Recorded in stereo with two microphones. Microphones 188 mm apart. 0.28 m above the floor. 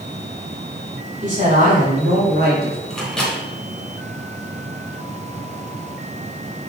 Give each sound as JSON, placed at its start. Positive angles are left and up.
{"t": 1.2, "sound": "a man speaking", "side_deg": -40, "distance_m": 2.5}
{"t": 2.9, "sound": "a microwave", "side_deg": 0, "distance_m": 1.9}